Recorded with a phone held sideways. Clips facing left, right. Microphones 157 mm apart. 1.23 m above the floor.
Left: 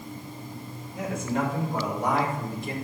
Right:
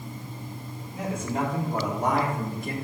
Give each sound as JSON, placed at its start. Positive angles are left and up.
{"t": 0.9, "sound": "a man speaking", "side_deg": -30, "distance_m": 4.0}